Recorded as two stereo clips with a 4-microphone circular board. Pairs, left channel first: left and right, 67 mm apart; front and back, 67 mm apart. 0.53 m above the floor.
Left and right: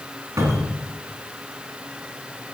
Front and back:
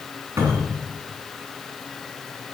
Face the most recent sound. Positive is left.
turn(degrees=-135)